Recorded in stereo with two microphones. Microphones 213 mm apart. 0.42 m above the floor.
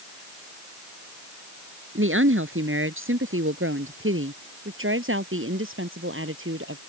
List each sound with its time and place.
1.9 s a woman speaking: 75° right (ahead or behind)